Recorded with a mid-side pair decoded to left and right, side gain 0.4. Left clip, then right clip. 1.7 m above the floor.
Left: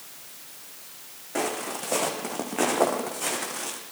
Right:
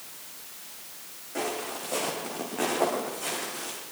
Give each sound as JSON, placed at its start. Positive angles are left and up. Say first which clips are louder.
{"t": 1.4, "sound": "footsteps", "louder": "left 3 dB", "azimuth_deg": 60, "distance_m": 5.5}